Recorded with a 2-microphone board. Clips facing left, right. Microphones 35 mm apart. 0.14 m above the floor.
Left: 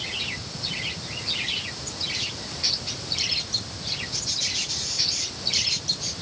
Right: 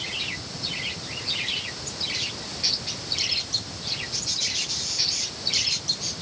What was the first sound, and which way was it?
Only background noise.